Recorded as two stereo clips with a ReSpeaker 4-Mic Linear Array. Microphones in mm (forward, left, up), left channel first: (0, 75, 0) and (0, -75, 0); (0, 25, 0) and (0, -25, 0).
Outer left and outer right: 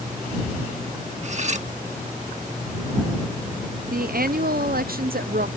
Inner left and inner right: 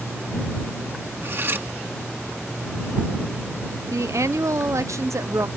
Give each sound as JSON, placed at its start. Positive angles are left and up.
{"t": 1.2, "sound": "cutlery clinking", "side_deg": -50}
{"t": 3.9, "sound": "a woman speaking", "side_deg": -80}